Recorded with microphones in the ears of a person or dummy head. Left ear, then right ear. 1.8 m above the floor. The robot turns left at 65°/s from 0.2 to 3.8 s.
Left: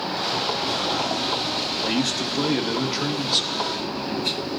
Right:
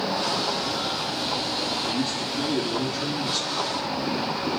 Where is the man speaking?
125° left, 1.1 m; by 3.7 s 5° left, 1.1 m.